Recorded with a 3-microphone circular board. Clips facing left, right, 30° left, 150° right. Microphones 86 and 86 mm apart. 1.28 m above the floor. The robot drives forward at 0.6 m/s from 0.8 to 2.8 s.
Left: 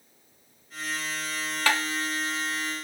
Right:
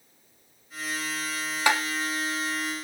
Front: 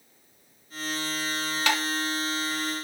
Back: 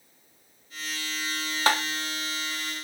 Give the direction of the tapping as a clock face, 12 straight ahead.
5 o'clock.